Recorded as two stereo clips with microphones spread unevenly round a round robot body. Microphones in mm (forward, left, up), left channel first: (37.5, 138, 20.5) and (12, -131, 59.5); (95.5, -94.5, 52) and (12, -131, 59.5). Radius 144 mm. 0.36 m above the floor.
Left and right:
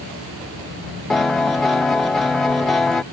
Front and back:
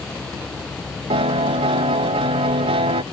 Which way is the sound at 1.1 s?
170° left.